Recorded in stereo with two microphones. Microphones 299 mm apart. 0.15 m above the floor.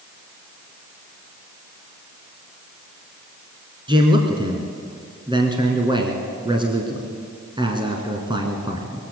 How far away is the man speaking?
About 2 m.